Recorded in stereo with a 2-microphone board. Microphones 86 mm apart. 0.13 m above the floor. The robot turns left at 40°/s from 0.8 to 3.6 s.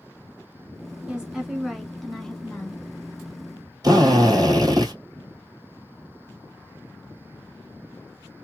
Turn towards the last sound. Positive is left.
turn(degrees=-45)  # may be behind; listen again after turning